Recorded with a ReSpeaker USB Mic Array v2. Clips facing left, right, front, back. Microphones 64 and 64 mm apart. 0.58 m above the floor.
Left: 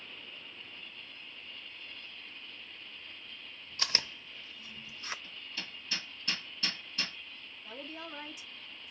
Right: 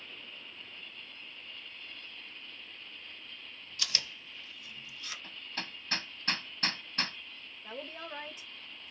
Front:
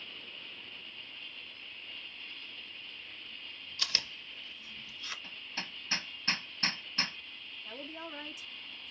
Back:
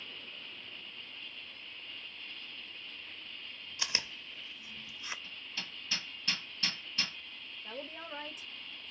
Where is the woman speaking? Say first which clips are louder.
Right 2 dB, even; 140° right, 2.5 m.